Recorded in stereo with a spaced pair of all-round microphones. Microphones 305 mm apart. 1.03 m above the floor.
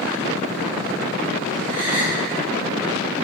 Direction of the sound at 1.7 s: 30° left (ahead or behind).